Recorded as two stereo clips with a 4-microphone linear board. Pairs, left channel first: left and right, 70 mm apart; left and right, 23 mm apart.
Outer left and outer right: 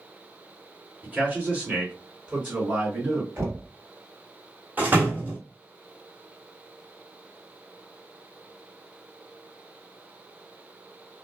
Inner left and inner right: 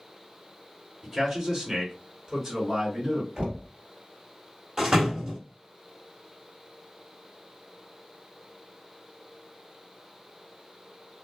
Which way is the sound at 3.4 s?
45° right (ahead or behind).